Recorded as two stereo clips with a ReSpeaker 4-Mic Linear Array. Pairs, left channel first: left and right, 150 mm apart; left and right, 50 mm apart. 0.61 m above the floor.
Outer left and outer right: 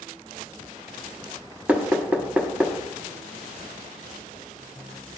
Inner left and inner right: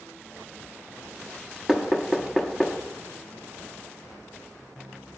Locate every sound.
1.7 s knocking: 10° right (ahead or behind), 0.9 m